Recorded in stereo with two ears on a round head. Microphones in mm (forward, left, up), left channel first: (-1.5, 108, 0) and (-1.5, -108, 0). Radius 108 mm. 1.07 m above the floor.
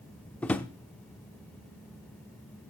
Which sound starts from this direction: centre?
A drawer, at 0.4 s.